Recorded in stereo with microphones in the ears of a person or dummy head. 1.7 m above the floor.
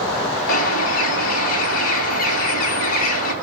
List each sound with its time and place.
0.5 s a bird: 50° left (ahead or behind), 3 m